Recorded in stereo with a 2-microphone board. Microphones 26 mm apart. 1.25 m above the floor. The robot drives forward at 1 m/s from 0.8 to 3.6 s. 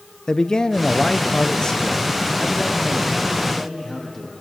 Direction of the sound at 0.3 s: 25° left (ahead or behind).